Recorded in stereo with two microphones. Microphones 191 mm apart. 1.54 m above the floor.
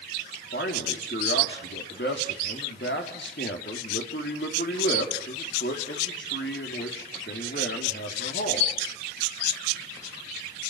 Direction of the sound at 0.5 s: 75° left (ahead or behind).